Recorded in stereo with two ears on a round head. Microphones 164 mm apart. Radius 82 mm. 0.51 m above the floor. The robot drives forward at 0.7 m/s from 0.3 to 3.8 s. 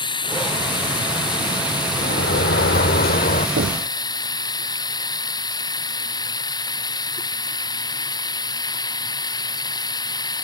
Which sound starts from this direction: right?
Knocking, at 3.6 s.